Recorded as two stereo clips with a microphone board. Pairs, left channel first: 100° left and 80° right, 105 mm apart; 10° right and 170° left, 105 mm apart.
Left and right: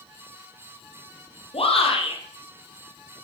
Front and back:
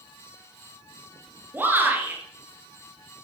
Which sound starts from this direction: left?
A shout, at 1.5 s.